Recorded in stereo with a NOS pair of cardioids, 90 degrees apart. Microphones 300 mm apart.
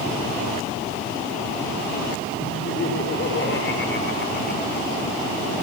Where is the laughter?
45° left, 7 m; by 5.2 s 30° left, 6.5 m.